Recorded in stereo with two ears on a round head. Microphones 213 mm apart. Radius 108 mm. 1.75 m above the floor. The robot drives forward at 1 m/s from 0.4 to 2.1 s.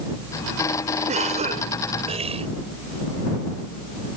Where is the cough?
30° right (ahead or behind); by 2.5 s 25° right (ahead or behind).